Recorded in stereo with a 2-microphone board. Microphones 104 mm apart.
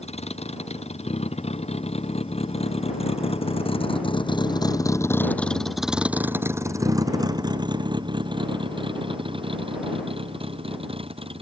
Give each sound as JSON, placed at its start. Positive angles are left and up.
{"t": 0.0, "sound": "a vehicle", "side_deg": 85}